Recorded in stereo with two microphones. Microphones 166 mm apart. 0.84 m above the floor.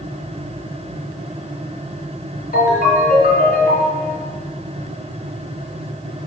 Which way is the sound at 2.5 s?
60° left (ahead or behind).